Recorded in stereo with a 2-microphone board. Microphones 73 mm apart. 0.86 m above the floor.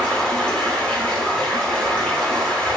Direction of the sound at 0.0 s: 10° left (ahead or behind).